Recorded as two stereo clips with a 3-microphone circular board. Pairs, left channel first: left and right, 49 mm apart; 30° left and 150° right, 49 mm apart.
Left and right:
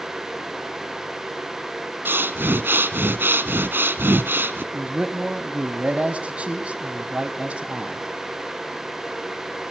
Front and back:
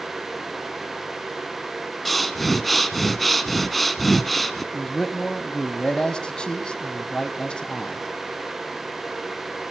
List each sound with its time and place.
2.0 s breathing: 55° right, 1.5 m
4.7 s a man speaking: 35° right, 1.8 m